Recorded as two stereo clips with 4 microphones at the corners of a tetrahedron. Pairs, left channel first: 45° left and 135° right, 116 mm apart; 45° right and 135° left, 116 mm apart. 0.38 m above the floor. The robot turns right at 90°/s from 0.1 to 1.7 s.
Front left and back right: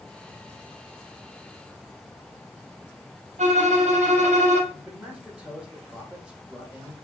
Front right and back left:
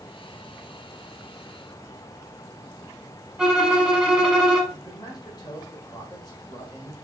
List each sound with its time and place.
3.4 s a violin: 140° right, 0.8 m
4.7 s a man speaking: 60° right, 1.4 m